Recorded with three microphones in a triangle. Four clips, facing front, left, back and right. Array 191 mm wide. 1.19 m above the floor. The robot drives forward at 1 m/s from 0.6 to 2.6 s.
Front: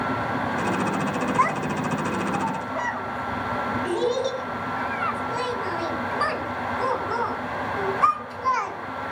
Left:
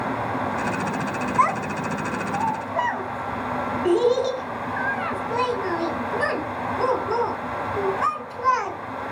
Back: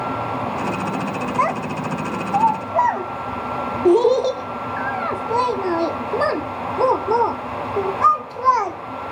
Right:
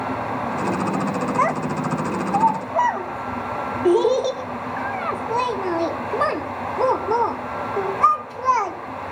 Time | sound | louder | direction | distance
1.4 | a child speaking | left 2 dB, back 3 dB | 130° right | 1.2 m